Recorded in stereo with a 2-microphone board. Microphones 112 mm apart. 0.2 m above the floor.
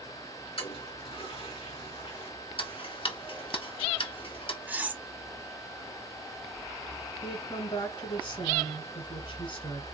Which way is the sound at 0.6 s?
55° left (ahead or behind).